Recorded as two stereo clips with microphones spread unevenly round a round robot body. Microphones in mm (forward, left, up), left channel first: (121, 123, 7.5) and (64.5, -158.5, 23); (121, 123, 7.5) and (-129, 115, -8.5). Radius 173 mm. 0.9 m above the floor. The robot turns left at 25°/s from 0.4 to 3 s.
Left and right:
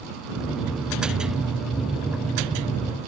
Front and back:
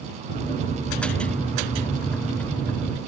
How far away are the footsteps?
No footsteps in this recording.